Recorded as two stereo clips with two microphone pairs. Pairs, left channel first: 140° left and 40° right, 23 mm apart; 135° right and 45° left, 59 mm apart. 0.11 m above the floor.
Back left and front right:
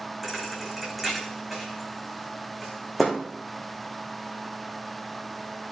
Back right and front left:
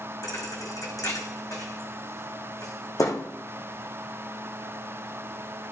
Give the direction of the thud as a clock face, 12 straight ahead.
4 o'clock.